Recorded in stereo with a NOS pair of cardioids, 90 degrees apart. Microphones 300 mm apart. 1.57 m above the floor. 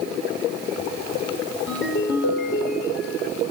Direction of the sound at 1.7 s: 45° left.